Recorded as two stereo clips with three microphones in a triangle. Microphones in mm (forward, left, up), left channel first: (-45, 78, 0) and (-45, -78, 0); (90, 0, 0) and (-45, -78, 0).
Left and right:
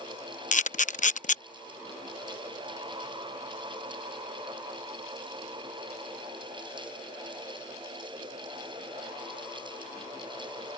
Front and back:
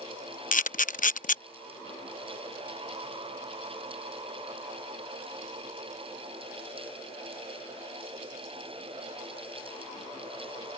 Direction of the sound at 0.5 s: 55° left.